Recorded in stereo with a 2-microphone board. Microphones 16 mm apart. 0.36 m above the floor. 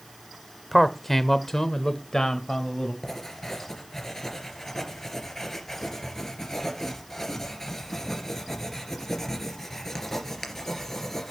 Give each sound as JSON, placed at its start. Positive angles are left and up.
{"t": 0.7, "sound": "a man speaking", "side_deg": 5, "distance_m": 0.9}
{"t": 3.0, "sound": "writing", "side_deg": 30, "distance_m": 3.0}